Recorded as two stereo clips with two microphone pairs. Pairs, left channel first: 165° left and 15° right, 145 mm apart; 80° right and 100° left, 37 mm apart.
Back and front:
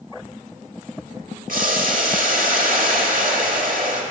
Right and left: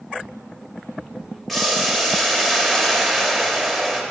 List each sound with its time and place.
1.5 s boiling: 5° left, 1.3 m